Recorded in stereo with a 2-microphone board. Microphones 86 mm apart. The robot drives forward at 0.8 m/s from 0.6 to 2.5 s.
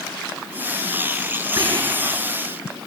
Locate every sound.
1.6 s whispering: 50° right (ahead or behind), 3.5 m; by 2.2 s 55° right (ahead or behind), 3 m